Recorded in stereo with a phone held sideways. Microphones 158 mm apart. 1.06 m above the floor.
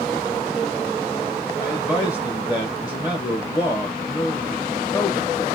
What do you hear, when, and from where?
1.6 s a man speaking: 20° left (ahead or behind), 1.2 m